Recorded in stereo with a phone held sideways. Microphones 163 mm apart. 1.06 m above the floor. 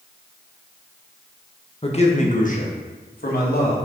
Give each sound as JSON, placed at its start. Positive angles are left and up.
{"t": 1.8, "sound": "a man speaking", "side_deg": 35, "distance_m": 1.2}